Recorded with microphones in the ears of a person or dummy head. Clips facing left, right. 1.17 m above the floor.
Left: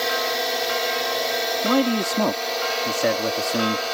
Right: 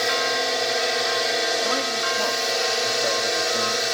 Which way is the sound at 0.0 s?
5° right (ahead or behind).